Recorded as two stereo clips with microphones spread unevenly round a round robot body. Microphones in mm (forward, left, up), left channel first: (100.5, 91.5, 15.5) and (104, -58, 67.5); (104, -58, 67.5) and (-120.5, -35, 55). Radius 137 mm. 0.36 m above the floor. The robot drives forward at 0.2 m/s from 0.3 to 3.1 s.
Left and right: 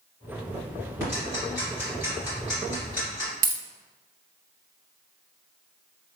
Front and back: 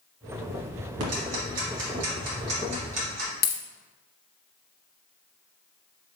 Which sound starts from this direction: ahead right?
A dropped coin, at 3.4 s.